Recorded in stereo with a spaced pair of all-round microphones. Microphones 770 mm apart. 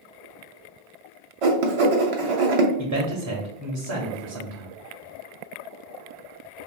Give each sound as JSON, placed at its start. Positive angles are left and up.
{"t": 1.4, "sound": "writing", "side_deg": -50, "distance_m": 0.6}
{"t": 2.8, "sound": "a man speaking", "side_deg": -30, "distance_m": 0.5}